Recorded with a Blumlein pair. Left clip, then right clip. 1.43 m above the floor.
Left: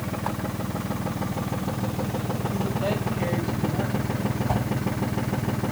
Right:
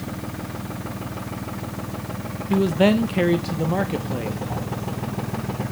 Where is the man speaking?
50° right, 1.4 m.